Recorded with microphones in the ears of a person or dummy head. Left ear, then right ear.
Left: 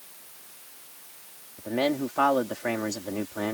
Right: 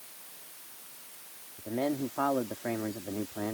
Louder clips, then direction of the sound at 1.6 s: Left 5 dB; 85° left.